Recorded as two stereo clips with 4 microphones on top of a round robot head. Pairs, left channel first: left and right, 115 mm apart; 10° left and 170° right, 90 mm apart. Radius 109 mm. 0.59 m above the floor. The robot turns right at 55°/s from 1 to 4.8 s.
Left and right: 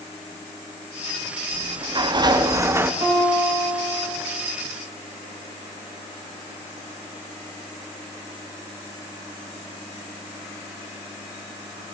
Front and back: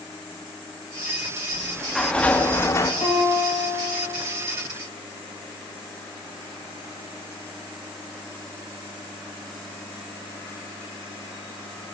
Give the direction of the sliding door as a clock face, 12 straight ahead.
3 o'clock.